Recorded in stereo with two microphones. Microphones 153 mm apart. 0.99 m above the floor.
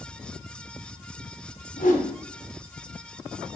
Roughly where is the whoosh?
Left.